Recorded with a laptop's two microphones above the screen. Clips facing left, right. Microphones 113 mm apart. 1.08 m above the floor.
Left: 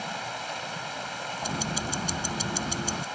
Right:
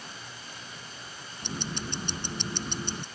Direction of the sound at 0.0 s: 70° left (ahead or behind).